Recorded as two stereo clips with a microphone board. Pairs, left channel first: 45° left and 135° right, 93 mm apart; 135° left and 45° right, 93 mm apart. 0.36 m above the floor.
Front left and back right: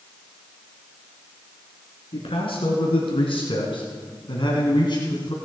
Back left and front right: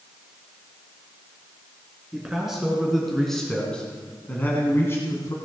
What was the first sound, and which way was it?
A man speaking, 35° left.